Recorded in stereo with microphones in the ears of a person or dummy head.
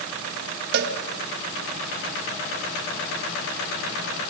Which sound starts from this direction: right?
A cowbell, at 0.7 s.